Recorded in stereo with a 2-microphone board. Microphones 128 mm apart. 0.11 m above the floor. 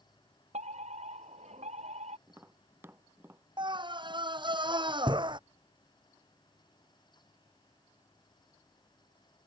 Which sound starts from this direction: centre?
Tapping, at 2.3 s.